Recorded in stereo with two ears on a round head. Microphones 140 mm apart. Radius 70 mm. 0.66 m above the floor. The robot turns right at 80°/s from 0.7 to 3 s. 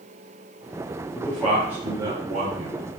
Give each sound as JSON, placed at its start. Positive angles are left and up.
{"t": 1.1, "sound": "a man speaking", "side_deg": 15, "distance_m": 0.9}